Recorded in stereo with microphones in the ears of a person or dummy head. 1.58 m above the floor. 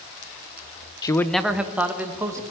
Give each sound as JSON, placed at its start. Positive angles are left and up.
{"t": 1.0, "sound": "a man speaking", "side_deg": 15, "distance_m": 0.7}